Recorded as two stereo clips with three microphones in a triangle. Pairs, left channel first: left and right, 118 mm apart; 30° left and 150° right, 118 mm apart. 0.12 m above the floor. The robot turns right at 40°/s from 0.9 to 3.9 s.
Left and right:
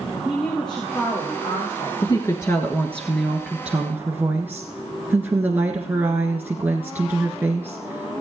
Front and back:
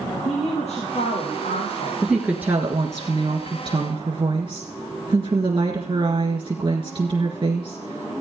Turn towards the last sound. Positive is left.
turn(degrees=-155)